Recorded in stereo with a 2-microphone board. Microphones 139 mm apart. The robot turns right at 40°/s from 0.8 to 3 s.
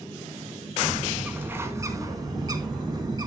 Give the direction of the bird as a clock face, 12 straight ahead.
6 o'clock.